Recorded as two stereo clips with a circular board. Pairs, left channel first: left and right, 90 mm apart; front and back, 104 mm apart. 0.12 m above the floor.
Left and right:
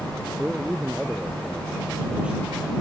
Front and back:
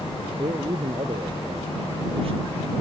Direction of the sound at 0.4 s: 170° right.